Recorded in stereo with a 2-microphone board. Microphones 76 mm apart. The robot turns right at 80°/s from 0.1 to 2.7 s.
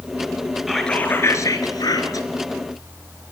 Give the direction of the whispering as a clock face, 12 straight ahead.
12 o'clock.